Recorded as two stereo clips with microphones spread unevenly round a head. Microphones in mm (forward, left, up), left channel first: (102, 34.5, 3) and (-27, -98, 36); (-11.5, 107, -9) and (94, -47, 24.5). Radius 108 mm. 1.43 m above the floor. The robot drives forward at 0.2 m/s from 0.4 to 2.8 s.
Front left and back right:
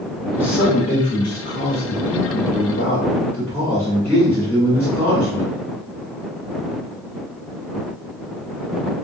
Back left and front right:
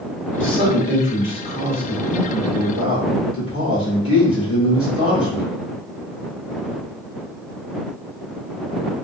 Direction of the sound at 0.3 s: 105° left.